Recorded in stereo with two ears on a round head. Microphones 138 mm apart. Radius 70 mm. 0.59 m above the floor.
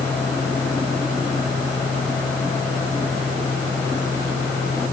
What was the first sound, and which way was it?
Only background noise.